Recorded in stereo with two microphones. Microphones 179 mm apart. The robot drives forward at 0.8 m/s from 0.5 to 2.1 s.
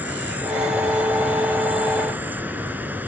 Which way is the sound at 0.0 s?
10° right (ahead or behind).